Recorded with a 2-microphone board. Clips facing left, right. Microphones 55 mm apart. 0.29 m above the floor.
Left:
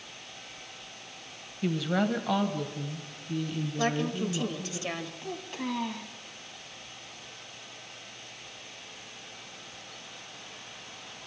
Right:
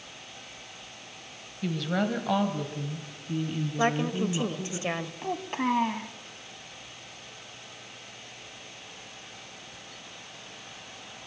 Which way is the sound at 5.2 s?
40° right (ahead or behind).